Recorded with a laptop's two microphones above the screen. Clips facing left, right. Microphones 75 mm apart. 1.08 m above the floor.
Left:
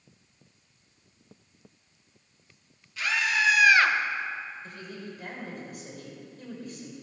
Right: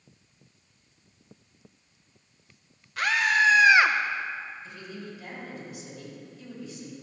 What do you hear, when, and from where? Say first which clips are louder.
3.0 s a scream: right 4 dB; 55° right (ahead or behind), 1.2 m; by 4.0 s centre (ahead or behind), 0.5 m
4.6 s a woman speaking: even; 50° left (ahead or behind), 4 m